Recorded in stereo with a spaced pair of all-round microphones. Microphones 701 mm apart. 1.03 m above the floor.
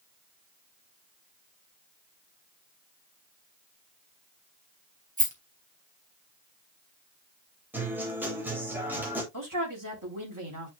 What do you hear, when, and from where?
5.2 s a rattle: 10° right (ahead or behind), 3 m
7.7 s a guitar: 5° right (ahead or behind), 3 m
9.3 s a man speaking: 30° right (ahead or behind), 3.5 m